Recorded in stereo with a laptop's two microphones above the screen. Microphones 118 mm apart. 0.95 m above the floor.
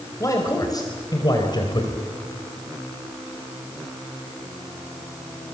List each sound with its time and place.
0.2 s a man speaking: 30° left (ahead or behind), 5 m; by 2.0 s 45° left (ahead or behind), 4.5 m